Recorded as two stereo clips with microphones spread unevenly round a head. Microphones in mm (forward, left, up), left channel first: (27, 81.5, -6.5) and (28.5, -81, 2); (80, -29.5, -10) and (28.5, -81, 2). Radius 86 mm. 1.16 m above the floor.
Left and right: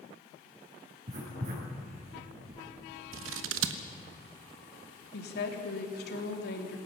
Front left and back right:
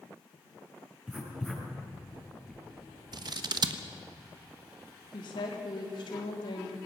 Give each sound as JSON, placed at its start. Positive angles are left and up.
{"t": 1.1, "sound": "writing", "azimuth_deg": -50, "distance_m": 7.5}
{"t": 3.1, "sound": "scissors", "azimuth_deg": -110, "distance_m": 1.2}
{"t": 5.1, "sound": "a woman speaking", "azimuth_deg": 70, "distance_m": 3.0}